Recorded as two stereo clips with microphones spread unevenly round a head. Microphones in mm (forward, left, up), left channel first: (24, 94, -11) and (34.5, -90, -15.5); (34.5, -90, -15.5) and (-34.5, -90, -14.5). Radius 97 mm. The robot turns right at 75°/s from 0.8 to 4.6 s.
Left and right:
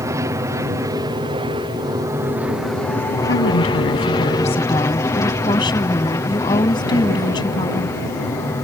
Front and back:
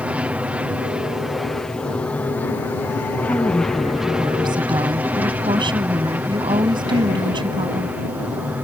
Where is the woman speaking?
65° left; by 8.0 s 165° left.